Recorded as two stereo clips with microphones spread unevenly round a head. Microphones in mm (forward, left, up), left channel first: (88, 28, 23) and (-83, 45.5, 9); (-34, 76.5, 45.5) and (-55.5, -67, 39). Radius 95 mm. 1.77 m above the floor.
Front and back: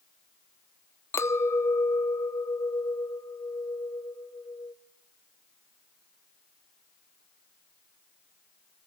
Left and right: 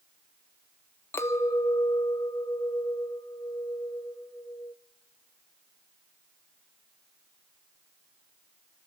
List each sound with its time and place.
1.1 s a clink: 30° left, 0.6 m